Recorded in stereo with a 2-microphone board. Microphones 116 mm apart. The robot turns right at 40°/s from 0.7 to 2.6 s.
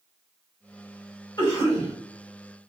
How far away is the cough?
About 1.8 m.